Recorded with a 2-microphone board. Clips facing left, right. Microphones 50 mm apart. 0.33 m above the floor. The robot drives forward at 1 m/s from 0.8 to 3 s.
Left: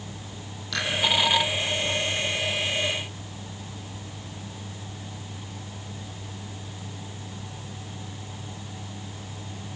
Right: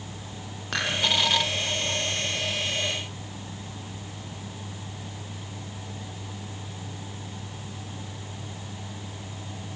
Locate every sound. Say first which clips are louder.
0.7 s dishes clattering: even; 45° right (ahead or behind), 8 m